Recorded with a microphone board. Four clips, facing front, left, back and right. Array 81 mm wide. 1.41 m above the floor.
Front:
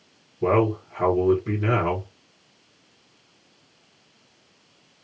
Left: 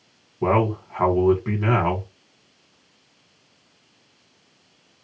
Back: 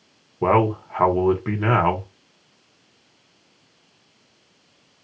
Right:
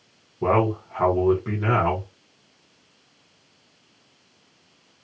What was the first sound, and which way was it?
A man speaking, 175° left.